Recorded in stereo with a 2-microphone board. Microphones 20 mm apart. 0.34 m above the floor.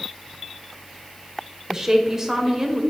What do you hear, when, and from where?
1.7 s a woman speaking: 25° right (ahead or behind), 1.4 m